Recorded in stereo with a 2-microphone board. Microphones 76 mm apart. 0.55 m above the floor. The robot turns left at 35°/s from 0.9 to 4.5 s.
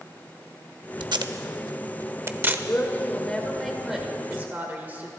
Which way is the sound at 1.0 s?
80° right.